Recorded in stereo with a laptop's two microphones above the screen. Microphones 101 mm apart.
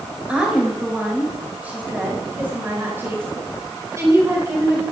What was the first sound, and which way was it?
A woman speaking, 10° right (ahead or behind).